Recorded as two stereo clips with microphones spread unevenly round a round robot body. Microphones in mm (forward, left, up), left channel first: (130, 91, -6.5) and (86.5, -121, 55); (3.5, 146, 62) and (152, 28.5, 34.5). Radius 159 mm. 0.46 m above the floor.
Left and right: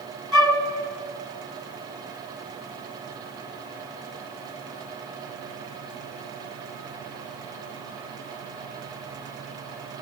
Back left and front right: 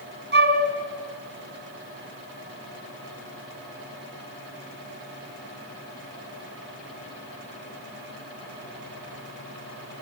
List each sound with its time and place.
0.3 s a flute: 10° right, 2.5 m